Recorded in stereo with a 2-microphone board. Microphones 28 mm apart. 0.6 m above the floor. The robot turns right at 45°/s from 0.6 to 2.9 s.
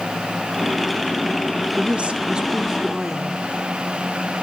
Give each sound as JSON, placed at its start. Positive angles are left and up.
{"t": 1.8, "sound": "a woman speaking", "azimuth_deg": -65, "distance_m": 1.5}